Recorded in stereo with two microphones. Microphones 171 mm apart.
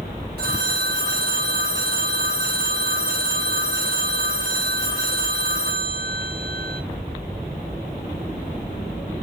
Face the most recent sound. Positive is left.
turn(degrees=-80)